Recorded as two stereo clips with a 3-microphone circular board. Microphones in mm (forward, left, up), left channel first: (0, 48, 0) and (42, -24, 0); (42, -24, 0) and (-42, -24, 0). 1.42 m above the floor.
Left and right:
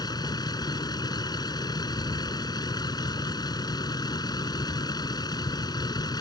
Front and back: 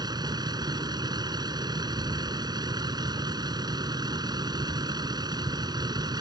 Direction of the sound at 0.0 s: 150° left.